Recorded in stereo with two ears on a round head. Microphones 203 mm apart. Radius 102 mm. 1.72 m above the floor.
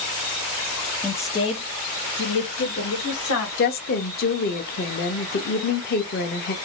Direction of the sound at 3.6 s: 40° left (ahead or behind).